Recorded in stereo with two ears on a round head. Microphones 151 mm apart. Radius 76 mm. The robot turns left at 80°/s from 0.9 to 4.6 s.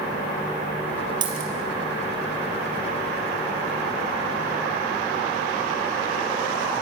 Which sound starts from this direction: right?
A dropped coin, at 1.2 s.